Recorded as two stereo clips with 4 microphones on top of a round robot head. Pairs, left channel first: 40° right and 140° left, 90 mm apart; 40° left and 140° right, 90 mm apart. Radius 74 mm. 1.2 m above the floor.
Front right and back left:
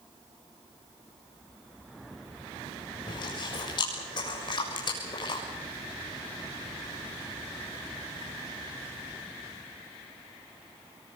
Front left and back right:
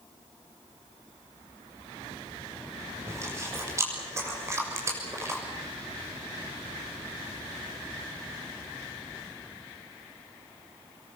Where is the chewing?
80° right, 6.5 m.